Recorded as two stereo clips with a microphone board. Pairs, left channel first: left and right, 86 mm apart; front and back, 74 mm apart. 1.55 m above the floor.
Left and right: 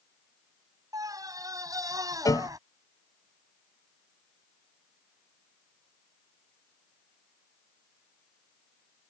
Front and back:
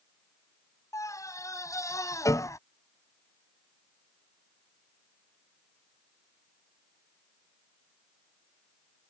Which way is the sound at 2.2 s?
45° left.